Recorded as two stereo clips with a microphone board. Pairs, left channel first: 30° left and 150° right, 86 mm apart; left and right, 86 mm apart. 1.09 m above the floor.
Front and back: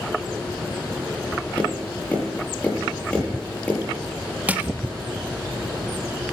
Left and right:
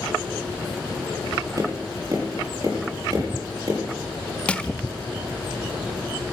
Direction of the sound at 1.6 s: 45° right.